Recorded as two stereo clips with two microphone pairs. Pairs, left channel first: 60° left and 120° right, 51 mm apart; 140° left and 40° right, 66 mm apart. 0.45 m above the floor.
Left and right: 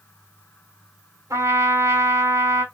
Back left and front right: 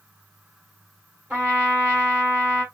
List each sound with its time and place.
1.3 s a trumpet: 115° right, 4.5 m